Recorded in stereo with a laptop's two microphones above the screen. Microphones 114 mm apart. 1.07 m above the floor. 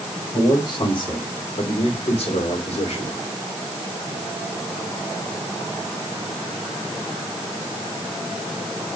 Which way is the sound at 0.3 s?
35° left (ahead or behind).